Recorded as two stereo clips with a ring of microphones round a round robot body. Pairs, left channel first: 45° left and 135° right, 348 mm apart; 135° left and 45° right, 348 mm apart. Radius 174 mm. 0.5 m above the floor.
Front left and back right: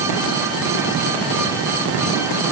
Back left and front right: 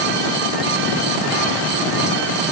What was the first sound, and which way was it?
Only background noise.